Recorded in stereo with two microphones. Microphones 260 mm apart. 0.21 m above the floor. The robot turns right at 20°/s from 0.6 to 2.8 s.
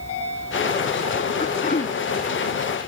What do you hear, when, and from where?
1.4 s throat clearing: 30° left (ahead or behind); by 2.0 s 35° left (ahead or behind)